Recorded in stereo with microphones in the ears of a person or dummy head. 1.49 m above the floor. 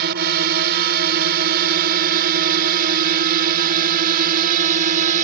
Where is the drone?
50° right (ahead or behind); by 5.2 s 40° right (ahead or behind).